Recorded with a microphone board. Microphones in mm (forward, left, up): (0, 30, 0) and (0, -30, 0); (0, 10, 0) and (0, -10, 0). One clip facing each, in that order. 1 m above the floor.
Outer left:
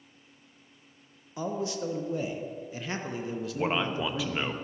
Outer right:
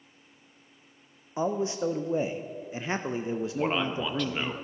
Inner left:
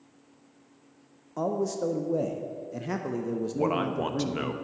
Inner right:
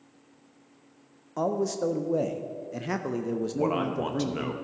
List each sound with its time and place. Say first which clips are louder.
1.4 s a man speaking: outer right 4 dB, inner right 1 dB; 25° right (ahead or behind), 0.5 m
3.5 s a man speaking: outer left 1 dB, inner left 1 dB; 5° left (ahead or behind), 0.9 m